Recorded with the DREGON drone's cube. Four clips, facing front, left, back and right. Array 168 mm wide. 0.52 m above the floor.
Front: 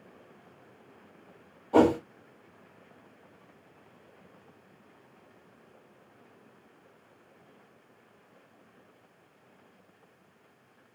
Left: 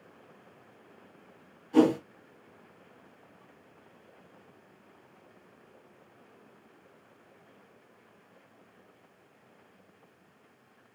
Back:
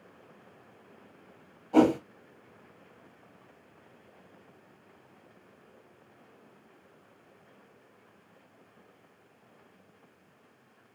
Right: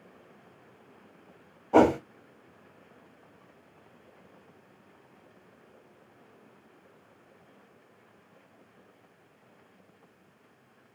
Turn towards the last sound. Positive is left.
turn(degrees=-70)